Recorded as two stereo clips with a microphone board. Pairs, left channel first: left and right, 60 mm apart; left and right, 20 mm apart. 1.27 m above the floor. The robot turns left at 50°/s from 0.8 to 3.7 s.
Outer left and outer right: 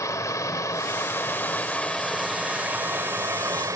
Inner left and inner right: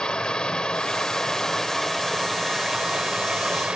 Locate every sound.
0.0 s running water: 65° left, 1.8 m; by 3.8 s 80° right, 1.8 m